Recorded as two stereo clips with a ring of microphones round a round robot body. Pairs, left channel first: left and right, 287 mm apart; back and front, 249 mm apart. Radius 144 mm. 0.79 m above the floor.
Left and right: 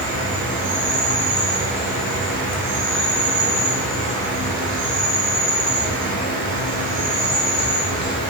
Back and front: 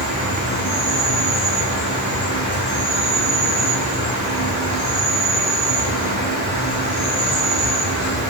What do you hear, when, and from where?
0.0 s an insect: 110° right, 1.1 m